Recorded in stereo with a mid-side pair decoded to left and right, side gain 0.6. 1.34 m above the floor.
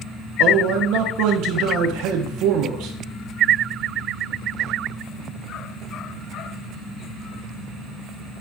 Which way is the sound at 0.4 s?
70° right.